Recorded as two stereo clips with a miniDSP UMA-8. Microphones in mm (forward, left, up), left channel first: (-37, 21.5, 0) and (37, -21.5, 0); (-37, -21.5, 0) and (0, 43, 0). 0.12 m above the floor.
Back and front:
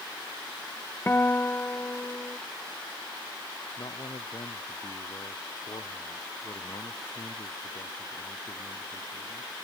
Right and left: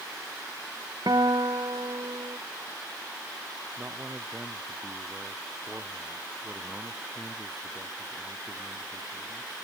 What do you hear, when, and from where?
1.1 s a guitar: 85° left
3.8 s a man speaking: 125° left